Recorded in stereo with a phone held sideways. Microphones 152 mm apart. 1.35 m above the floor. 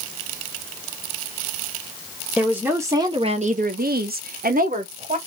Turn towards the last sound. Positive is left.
turn(degrees=-55)  # may be behind; listen again after turning